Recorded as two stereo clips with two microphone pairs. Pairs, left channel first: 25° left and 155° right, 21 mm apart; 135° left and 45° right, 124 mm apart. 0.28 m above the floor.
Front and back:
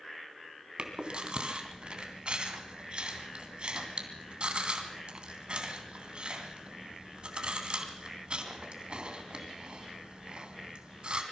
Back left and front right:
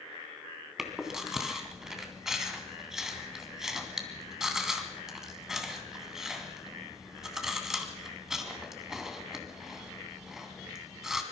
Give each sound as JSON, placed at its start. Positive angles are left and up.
{"t": 0.8, "sound": "chewing", "azimuth_deg": -130, "distance_m": 3.0}